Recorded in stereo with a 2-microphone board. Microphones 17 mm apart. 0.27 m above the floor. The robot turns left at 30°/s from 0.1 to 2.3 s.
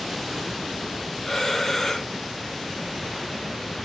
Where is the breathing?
25° left (ahead or behind), 1.5 m.